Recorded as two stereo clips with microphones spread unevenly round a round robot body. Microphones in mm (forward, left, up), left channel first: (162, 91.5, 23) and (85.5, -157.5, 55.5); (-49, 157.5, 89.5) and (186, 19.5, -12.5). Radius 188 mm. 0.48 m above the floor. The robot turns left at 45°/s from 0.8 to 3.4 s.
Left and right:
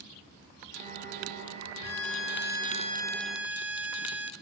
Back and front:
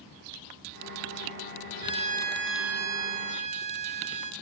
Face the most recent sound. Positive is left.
turn(degrees=-25)